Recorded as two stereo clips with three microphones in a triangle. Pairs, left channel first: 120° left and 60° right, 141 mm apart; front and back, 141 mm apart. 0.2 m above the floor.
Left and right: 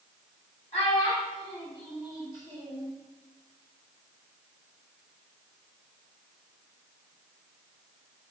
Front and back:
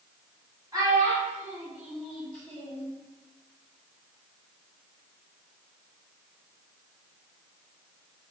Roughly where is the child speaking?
Behind left.